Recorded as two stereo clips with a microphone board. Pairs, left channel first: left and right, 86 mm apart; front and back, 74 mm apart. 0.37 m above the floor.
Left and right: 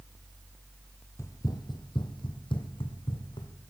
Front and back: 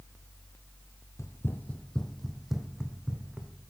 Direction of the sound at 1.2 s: 40° left.